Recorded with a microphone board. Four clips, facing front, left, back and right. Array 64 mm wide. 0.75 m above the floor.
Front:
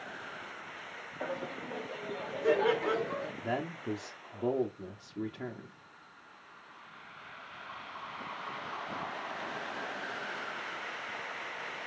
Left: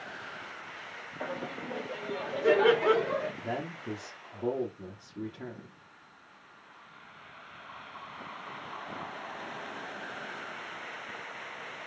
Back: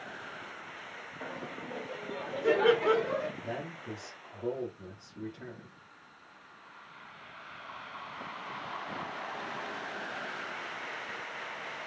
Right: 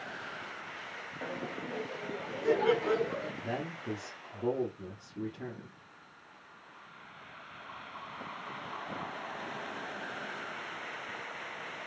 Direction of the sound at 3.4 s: 15° left.